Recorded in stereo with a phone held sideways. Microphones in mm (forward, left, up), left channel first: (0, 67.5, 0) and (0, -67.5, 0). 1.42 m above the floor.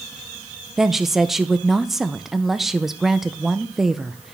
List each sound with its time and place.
0.8 s a woman speaking: centre (ahead or behind), 0.5 m